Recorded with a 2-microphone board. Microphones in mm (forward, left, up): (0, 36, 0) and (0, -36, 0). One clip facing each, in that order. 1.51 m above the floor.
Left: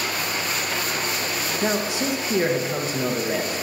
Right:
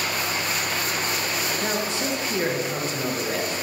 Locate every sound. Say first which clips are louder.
1.6 s a man speaking: left 6 dB; 10° left (ahead or behind), 0.9 m